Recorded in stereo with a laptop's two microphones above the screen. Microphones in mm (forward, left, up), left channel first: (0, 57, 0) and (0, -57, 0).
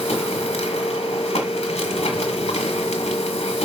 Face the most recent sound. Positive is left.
turn(degrees=60)  # may be behind; listen again after turning